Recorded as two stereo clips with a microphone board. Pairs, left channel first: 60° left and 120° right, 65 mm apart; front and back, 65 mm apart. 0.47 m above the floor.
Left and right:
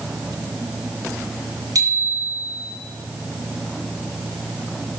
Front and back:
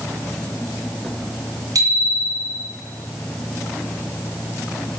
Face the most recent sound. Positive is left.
turn(degrees=-150)